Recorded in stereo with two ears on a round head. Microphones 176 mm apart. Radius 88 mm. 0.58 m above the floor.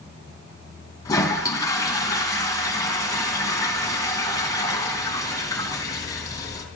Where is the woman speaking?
No woman speaking in this recording.